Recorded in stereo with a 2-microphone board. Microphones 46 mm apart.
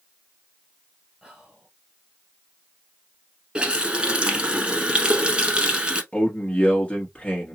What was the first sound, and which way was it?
Whispering, 5° right (ahead or behind).